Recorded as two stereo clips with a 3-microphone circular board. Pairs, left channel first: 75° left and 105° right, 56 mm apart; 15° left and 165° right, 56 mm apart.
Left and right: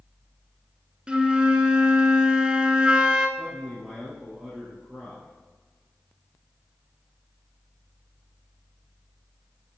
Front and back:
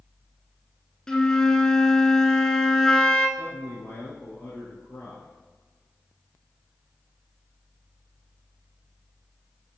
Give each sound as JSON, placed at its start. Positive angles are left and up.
{"t": 1.1, "sound": "a flute", "azimuth_deg": -55, "distance_m": 0.8}
{"t": 3.4, "sound": "a man speaking", "azimuth_deg": -15, "distance_m": 2.0}